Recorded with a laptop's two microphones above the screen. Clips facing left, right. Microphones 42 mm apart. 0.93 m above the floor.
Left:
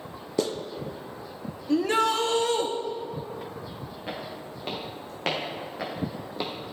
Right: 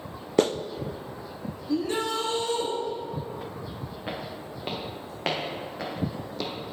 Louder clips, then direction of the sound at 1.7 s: Left 4 dB; 70° left (ahead or behind).